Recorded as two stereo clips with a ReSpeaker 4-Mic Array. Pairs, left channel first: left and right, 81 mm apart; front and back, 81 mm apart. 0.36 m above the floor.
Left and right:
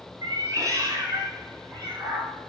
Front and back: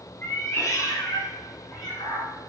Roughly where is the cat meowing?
Ahead right.